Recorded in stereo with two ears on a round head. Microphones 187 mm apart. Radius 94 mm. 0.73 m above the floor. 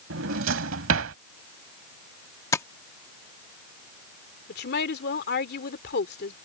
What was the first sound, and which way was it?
A drawer, 65° right (ahead or behind).